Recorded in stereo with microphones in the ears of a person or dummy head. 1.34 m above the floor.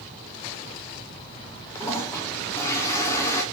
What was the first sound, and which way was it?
A toilet flushing, 15° left (ahead or behind).